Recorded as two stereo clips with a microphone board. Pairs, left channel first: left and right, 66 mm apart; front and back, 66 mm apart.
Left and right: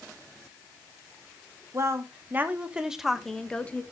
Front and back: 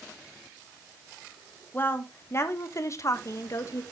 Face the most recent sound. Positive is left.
turn(degrees=25)